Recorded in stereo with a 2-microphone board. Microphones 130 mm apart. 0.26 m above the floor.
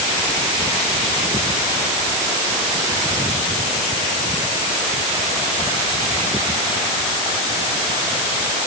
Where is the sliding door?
No sliding door in this recording.